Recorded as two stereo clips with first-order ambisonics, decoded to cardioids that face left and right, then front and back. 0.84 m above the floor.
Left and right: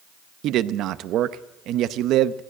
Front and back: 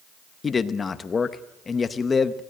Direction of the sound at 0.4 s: 65° right.